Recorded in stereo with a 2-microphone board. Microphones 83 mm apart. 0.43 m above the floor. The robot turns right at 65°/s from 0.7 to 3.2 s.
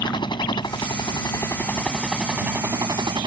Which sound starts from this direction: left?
A helicopter, at 0.0 s.